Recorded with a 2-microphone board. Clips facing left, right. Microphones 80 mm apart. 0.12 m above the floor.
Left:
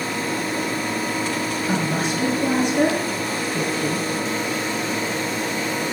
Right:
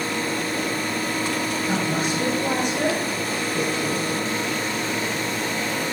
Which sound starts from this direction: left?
A woman speaking, at 1.7 s.